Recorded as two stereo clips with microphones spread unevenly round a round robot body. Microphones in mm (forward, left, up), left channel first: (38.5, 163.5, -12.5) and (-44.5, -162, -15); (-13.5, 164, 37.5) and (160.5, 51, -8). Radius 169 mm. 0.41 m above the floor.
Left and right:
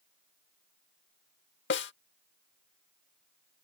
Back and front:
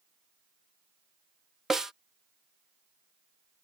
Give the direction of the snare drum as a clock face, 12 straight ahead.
11 o'clock.